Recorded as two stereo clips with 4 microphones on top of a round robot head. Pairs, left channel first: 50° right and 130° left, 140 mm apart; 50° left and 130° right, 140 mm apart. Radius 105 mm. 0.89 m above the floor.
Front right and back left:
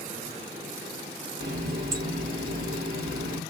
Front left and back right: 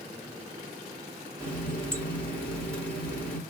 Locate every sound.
1.4 s a running tap: 135° left, 1.9 m